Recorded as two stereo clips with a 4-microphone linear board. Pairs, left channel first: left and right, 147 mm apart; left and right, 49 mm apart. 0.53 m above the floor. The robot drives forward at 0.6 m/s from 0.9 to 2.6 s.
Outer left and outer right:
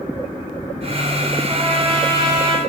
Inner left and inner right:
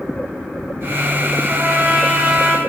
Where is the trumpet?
45° right (ahead or behind), 1.1 m; by 2.6 s 30° right (ahead or behind), 1.6 m.